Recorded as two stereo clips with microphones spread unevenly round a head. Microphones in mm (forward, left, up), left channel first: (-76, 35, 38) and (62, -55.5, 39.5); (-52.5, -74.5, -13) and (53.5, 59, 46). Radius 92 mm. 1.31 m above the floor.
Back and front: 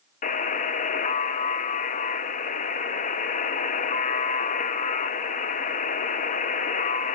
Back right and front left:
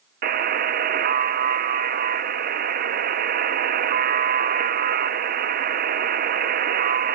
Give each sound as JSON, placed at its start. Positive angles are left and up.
{"t": 0.2, "sound": "a buzzer", "azimuth_deg": 95, "distance_m": 0.6}